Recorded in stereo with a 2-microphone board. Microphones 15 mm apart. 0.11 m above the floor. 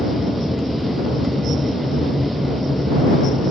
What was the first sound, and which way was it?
An aircraft, 20° right (ahead or behind).